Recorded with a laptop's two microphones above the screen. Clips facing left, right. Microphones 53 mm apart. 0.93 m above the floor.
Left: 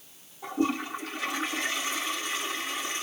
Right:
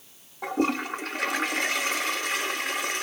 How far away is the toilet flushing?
About 0.7 m.